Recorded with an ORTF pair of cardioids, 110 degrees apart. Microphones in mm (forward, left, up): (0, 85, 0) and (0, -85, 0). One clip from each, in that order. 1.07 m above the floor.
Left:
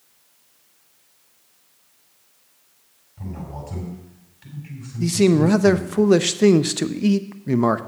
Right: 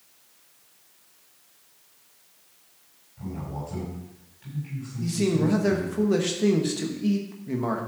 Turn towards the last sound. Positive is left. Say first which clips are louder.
# left 8 dB
turn(degrees=50)